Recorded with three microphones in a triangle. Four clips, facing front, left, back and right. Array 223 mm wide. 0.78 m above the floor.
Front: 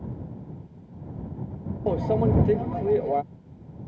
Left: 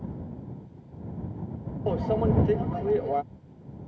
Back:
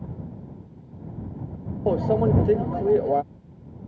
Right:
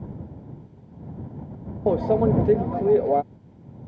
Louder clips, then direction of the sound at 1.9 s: Right 6 dB, back 2 dB; 115° right.